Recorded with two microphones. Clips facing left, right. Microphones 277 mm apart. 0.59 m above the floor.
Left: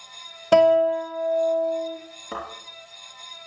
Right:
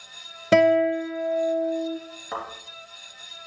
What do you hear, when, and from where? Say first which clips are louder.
0.5 s a guitar: left 1 dB; 20° right (ahead or behind), 0.9 m
2.3 s a thud: left 1 dB; 30° left (ahead or behind), 3.5 m